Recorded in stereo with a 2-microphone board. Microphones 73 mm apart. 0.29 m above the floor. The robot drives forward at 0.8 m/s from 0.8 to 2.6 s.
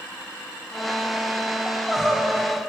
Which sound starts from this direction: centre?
Crying, at 1.7 s.